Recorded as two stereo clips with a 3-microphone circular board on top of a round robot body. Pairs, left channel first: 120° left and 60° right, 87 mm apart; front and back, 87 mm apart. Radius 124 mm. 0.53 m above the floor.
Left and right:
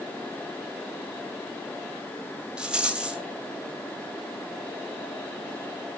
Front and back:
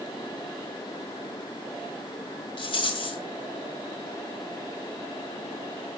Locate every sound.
2.6 s a rattle: 20° left, 2.0 m